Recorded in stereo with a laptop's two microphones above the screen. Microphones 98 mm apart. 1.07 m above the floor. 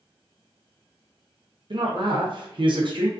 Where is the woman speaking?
55° right (ahead or behind), 0.6 m.